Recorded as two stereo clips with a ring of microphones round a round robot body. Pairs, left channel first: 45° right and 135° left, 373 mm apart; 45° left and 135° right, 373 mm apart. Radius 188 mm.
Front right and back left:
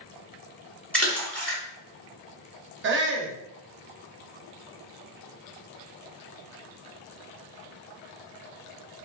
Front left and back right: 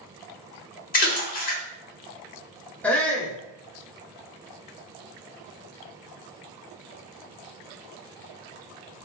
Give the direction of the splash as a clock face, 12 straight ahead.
11 o'clock.